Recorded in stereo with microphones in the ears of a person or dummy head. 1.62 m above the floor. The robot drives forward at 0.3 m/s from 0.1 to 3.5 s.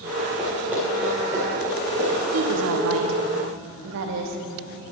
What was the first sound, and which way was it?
Running footsteps, centre (ahead or behind).